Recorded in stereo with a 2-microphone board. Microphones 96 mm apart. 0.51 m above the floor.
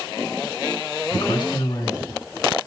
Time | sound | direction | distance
1.1 | a man speaking | 55° left (ahead or behind) | 4 m